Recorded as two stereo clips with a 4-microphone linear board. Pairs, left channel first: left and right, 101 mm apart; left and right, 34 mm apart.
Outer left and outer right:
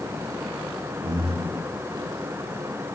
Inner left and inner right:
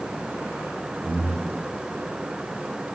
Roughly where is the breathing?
Right.